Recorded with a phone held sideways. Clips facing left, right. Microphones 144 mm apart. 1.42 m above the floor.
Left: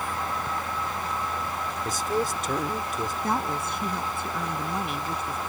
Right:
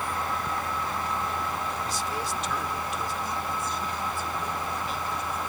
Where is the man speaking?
50° left (ahead or behind).